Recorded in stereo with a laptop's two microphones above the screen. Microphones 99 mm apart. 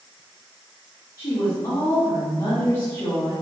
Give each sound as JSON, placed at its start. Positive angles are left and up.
{"t": 1.2, "sound": "a woman speaking", "side_deg": 50, "distance_m": 1.3}